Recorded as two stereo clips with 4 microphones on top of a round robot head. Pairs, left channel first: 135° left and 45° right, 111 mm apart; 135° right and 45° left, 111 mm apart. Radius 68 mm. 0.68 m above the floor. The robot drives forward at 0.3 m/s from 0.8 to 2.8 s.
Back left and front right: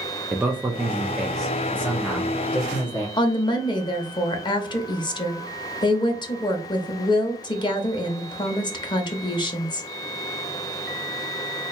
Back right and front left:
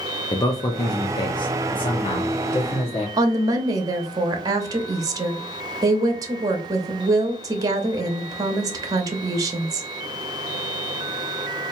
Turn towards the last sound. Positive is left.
turn(degrees=95)